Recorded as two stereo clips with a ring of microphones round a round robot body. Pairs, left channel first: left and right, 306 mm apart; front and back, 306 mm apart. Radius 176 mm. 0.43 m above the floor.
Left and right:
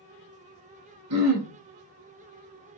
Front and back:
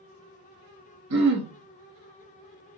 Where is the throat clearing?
135° right, 0.8 m.